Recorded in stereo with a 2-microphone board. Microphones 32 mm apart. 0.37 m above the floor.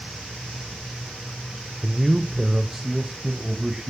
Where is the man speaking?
Centre (ahead or behind), 0.9 m; by 3.9 s 15° right (ahead or behind), 2.5 m.